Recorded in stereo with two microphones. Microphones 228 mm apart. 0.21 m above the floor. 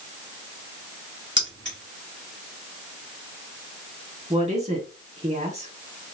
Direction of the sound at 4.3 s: 30° right (ahead or behind).